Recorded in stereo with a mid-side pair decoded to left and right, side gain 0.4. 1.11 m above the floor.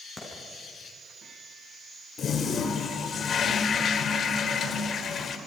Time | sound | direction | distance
0.2 | a clap | 30° left | 8.5 m
2.2 | a toilet flushing | 55° left | 2 m